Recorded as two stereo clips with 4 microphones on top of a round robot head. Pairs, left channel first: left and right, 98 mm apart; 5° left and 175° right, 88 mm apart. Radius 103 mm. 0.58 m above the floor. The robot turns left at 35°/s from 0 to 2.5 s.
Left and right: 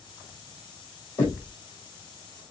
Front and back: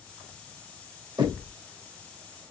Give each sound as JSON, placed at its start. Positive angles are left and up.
{"t": 1.2, "sound": "knocking", "azimuth_deg": 155, "distance_m": 2.5}